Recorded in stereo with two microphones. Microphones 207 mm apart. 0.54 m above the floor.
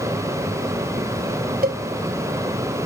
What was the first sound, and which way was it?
A cowbell, 45° right (ahead or behind).